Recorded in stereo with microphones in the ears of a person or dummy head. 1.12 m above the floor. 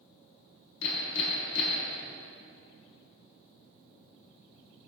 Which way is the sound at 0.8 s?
70° left (ahead or behind).